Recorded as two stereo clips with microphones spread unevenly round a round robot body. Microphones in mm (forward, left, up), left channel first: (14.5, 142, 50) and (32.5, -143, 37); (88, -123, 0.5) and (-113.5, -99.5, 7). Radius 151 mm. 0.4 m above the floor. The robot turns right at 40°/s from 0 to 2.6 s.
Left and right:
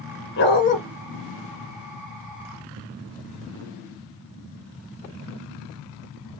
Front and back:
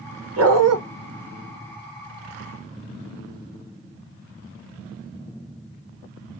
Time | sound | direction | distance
0.4 | a dog barking | 145° left | 1.5 m